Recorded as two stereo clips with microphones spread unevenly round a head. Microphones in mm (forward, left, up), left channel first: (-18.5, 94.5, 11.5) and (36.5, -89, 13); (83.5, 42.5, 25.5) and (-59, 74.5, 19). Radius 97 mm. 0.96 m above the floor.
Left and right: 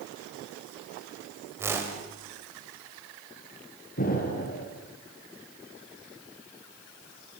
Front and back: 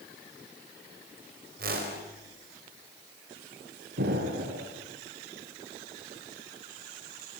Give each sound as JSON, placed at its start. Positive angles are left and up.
{"t": 1.6, "sound": "a whoosh", "azimuth_deg": -150, "distance_m": 4.0}
{"t": 4.0, "sound": "an explosion", "azimuth_deg": 155, "distance_m": 4.0}